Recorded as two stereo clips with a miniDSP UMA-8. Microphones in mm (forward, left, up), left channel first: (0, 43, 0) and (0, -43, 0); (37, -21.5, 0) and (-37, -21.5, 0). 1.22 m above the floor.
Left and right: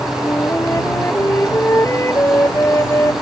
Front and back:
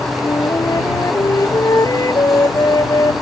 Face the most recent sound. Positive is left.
turn(degrees=35)